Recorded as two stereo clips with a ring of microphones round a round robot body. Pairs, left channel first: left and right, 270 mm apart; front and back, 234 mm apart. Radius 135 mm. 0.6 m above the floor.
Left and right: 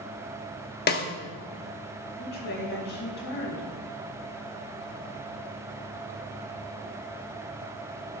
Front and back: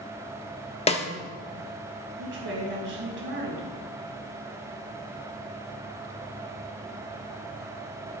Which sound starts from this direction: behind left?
A woman speaking, at 2.2 s.